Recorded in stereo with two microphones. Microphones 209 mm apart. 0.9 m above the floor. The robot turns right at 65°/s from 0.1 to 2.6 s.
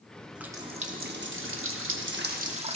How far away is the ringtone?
No ringtone in this recording.